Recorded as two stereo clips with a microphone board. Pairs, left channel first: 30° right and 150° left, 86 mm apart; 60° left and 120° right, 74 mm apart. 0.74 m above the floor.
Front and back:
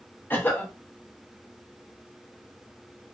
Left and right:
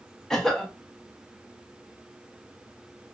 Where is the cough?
15° right, 0.7 m.